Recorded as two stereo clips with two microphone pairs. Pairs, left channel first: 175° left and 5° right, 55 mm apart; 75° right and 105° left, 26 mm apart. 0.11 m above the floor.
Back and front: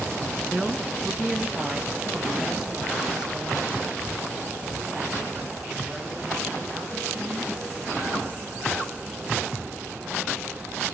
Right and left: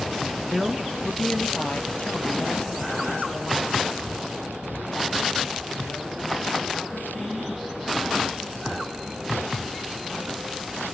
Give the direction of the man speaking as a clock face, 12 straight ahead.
10 o'clock.